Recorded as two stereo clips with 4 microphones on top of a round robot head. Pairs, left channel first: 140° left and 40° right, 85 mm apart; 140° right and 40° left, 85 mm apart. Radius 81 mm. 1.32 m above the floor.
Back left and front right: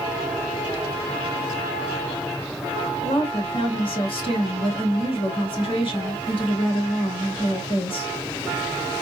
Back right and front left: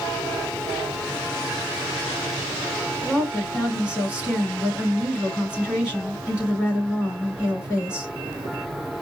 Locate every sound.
3.0 s a woman speaking: 120° left, 3 m